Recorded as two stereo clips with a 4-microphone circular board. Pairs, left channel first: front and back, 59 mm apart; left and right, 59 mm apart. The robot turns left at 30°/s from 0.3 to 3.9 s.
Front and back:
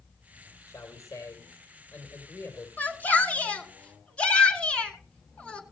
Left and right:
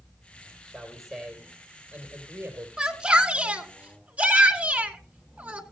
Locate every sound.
0.7 s a man speaking: 15° left, 3 m; by 2.7 s 45° right, 3 m
2.8 s a shout: 15° right, 1.5 m; by 5.6 s 50° right, 1.5 m